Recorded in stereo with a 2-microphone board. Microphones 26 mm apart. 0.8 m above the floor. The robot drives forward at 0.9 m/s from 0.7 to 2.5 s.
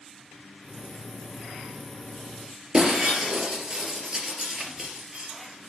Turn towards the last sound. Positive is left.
turn(degrees=-25)  # may be behind; listen again after turning